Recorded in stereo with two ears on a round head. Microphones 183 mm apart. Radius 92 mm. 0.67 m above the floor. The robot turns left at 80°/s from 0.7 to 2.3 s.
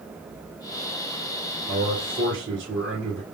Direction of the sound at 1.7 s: 45° right.